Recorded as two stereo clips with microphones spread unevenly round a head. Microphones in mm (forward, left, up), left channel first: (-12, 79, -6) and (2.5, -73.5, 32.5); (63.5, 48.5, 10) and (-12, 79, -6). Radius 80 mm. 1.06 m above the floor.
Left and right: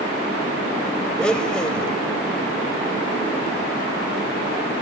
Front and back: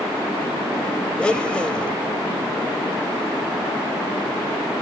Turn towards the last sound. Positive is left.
turn(degrees=-20)